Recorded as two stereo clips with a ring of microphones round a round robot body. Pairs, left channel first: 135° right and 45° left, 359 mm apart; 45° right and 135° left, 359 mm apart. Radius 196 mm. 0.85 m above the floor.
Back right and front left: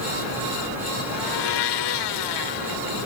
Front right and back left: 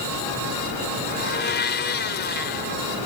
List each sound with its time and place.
1.1 s a blender: 110° right